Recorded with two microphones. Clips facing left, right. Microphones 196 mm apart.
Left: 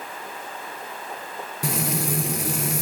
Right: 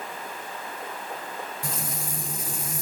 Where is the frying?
80° left, 1.6 m.